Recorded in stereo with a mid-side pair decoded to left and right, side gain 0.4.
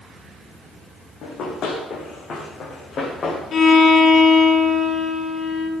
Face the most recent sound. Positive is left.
turn(degrees=60)